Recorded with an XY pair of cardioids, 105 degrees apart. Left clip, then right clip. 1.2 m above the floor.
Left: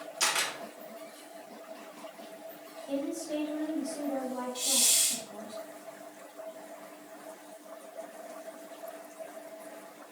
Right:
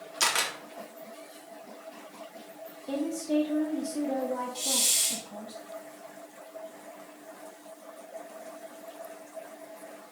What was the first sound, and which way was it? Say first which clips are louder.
A camera shutter: right 2 dB; 40° right.